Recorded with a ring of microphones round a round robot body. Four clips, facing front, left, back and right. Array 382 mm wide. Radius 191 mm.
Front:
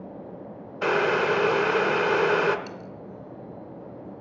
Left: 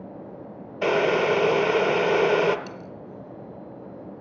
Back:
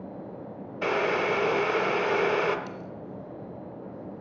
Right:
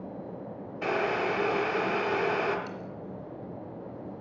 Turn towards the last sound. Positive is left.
turn(degrees=55)